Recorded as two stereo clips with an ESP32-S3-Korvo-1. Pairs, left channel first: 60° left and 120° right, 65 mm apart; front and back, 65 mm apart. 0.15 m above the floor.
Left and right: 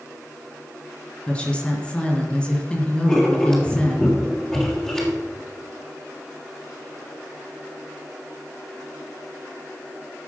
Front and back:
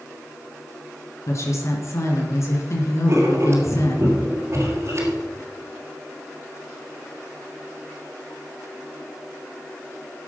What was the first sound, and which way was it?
A woman speaking, 10° right.